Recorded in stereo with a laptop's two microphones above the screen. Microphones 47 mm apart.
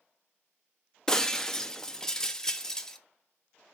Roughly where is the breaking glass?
Centre.